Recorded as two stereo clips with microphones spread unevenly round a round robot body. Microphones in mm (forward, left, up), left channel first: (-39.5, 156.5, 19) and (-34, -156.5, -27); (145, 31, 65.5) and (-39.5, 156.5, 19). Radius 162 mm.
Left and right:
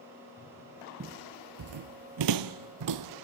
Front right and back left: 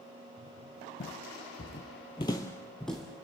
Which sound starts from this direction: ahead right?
Footsteps, at 1.0 s.